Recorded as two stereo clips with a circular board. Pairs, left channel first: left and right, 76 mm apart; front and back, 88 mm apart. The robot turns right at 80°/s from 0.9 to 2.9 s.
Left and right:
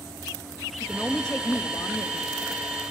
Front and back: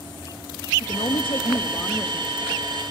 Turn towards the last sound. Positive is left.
turn(degrees=145)